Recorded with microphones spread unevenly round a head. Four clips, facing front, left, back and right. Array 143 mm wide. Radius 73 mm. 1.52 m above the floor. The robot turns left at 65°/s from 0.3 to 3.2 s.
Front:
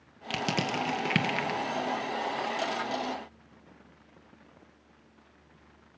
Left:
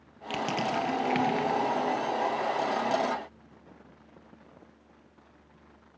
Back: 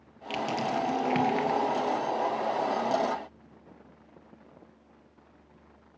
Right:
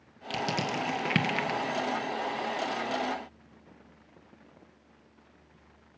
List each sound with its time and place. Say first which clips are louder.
0.3 s crushing: left 2 dB, back 2 dB; 5° left, 2 m; by 1.6 s 75° right, 2 m